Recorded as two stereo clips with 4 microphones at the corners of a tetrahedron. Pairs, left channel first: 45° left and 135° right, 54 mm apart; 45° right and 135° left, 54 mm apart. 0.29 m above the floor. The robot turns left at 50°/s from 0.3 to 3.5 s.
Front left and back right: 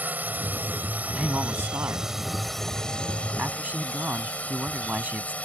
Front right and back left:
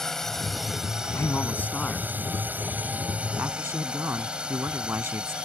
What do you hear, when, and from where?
0.0 s a drone: 120° right; by 5.4 s 80° left
1.1 s a man speaking: 75° right; by 5.3 s 170° left